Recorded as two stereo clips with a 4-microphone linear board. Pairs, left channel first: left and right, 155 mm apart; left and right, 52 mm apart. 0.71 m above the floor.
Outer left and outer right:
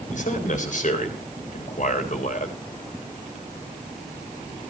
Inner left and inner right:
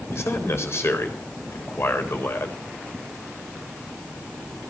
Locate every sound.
0.1 s a man speaking: 55° left (ahead or behind), 3.5 m